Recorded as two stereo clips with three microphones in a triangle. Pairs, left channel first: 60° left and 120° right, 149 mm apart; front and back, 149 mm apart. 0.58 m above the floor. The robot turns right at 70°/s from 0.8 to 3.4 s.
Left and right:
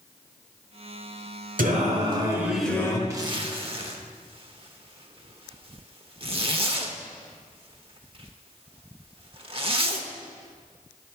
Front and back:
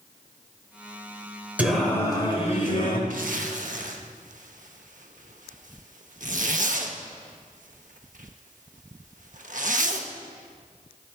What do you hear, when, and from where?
1.6 s singing: 100° right, 1.3 m; by 3.0 s straight ahead, 1.3 m
3.1 s a zipper: 175° left, 0.8 m; by 10.1 s 165° right, 0.8 m